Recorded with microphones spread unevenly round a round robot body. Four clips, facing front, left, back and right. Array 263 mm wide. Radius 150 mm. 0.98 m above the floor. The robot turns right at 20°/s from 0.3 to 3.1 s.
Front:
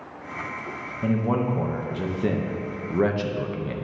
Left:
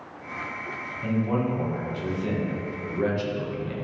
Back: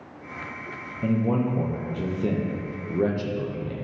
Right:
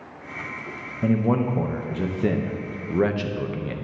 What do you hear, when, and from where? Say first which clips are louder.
1.0 s a man speaking: right 4 dB, even; 65° right, 1.0 m; by 3.8 s 25° right, 1.0 m